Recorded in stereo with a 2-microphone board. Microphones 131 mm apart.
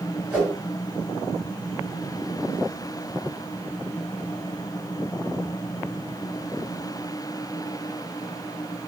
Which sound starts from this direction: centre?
A whoosh, at 0.3 s.